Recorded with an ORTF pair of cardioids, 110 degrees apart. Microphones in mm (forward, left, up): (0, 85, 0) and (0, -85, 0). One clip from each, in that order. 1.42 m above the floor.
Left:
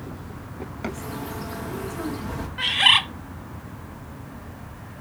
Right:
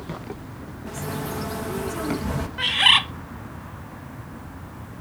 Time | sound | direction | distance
0.9 | a bird | 30° right | 1.3 m
2.6 | a bird | 5° right | 1.0 m